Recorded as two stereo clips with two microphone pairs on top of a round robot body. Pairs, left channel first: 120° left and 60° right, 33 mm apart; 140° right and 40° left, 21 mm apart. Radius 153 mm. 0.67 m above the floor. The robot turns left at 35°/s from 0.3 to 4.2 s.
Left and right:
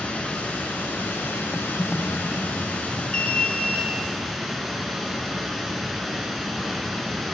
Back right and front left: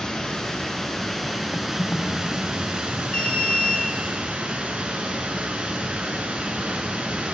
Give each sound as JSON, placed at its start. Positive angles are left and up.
{"t": 0.0, "sound": "running water", "azimuth_deg": 170, "distance_m": 2.0}
{"t": 1.5, "sound": "typing on a keyboard", "azimuth_deg": -140, "distance_m": 1.2}
{"t": 3.1, "sound": "an alarm", "azimuth_deg": 180, "distance_m": 1.6}